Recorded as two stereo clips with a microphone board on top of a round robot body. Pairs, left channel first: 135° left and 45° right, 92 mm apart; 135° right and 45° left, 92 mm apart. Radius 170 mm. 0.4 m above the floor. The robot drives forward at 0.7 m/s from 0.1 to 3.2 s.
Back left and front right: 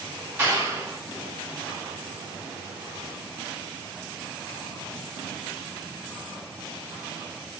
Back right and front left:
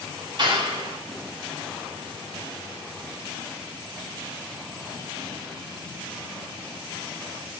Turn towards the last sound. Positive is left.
turn(degrees=50)